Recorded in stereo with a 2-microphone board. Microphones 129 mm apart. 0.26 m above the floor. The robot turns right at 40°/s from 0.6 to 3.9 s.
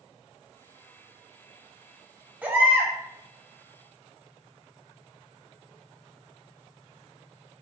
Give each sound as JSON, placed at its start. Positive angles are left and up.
{"t": 2.4, "sound": "a baby crying", "side_deg": -15, "distance_m": 1.1}